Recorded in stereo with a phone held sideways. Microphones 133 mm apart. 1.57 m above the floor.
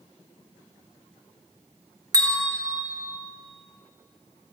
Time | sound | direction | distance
2.1 | a bell | 25° right (ahead or behind) | 1.3 m